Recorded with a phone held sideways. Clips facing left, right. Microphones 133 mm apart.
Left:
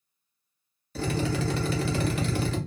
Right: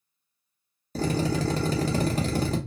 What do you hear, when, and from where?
0.9 s a drill: 35° right (ahead or behind), 0.8 m